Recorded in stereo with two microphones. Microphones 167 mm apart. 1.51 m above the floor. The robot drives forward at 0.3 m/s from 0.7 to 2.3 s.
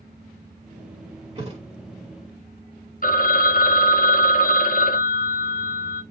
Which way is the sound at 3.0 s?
55° left (ahead or behind).